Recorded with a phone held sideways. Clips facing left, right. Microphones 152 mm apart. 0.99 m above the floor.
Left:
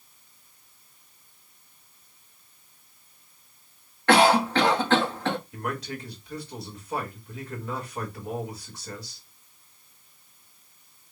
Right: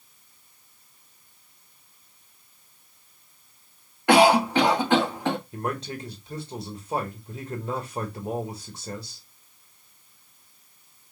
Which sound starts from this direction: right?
A man speaking, at 5.5 s.